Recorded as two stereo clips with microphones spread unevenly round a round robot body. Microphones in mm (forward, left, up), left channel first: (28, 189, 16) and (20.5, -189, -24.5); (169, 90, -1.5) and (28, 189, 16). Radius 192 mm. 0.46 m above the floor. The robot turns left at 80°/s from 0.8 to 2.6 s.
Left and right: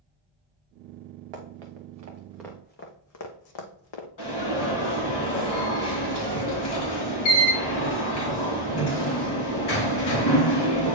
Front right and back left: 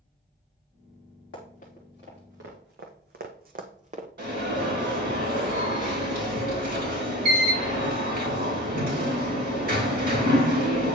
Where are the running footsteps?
75° right, 2 m; by 4.1 s 95° left, 1.3 m.